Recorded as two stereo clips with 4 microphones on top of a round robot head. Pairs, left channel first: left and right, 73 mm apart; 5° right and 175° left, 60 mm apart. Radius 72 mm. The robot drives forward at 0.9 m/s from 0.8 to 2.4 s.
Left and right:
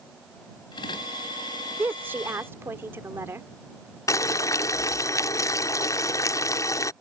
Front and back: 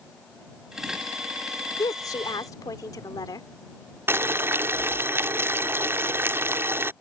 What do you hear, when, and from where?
1.8 s a woman speaking: 20° right; by 3.5 s 25° right
4.1 s boiling: 130° left